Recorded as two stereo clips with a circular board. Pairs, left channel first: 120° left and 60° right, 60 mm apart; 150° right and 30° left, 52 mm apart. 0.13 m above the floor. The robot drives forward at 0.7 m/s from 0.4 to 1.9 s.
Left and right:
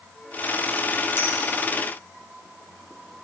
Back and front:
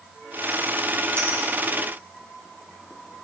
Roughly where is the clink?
Ahead left.